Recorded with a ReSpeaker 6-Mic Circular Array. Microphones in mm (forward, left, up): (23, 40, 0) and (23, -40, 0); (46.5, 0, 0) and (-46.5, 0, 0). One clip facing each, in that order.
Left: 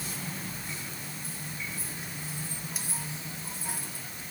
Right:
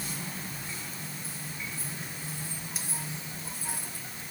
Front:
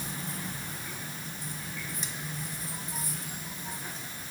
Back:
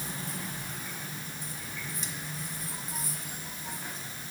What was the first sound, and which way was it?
Only background noise.